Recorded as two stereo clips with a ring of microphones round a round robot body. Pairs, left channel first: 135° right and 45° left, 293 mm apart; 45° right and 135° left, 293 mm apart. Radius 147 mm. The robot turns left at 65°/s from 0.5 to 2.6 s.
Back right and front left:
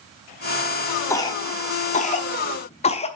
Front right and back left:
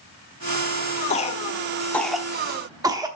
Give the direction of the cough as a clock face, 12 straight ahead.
2 o'clock.